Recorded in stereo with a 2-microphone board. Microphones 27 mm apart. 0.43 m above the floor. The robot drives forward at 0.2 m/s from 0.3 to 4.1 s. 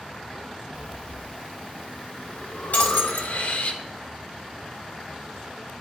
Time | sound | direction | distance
0.7 | breathing | 65° left (ahead or behind) | 1.0 m
2.7 | breaking glass | 65° left (ahead or behind) | 1.4 m